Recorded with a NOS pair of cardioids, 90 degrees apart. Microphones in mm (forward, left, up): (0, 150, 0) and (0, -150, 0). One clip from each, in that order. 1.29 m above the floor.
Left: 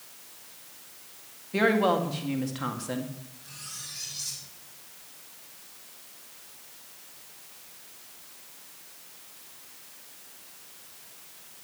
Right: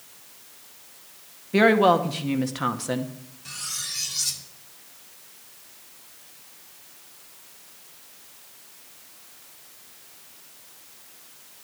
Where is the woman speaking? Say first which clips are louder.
Right 6 dB; 40° right, 1.9 m.